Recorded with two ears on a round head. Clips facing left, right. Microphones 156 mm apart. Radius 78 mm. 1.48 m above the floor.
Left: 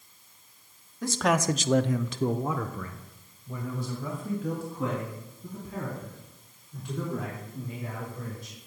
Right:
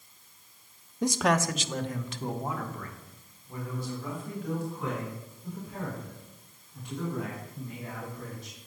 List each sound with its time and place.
1.0 s a man speaking: 20° right (ahead or behind), 0.6 m; by 8.6 s 70° left (ahead or behind), 6.5 m